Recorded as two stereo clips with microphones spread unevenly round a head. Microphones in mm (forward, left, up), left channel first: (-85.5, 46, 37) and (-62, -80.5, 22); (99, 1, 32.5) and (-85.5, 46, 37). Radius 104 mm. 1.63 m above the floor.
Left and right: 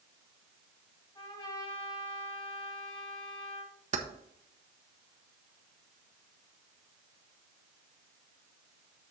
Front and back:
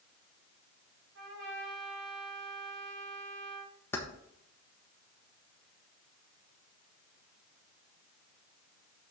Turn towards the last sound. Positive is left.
turn(degrees=-95)